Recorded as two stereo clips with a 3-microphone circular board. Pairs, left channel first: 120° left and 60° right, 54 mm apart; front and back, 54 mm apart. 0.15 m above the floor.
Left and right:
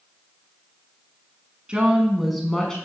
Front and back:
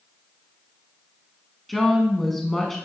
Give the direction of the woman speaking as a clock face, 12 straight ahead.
3 o'clock.